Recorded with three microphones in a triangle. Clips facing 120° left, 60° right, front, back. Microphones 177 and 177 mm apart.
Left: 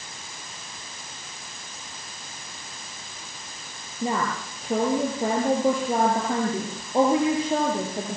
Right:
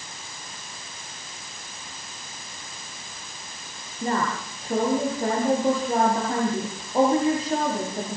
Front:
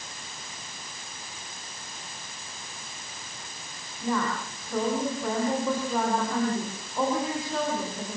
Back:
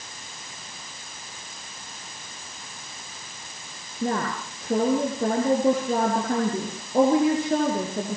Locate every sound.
4.0 s a woman speaking: 160° right, 8 m